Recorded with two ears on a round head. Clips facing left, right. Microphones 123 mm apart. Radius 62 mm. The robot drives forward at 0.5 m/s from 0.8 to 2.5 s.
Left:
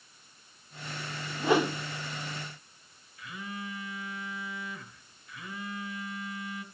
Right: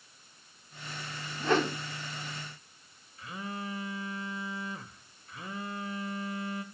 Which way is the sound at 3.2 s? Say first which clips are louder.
Right 2 dB; 30° right (ahead or behind).